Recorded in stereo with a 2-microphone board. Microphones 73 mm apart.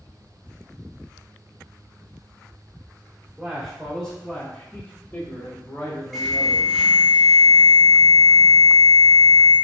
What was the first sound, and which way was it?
A man speaking, 5° right (ahead or behind).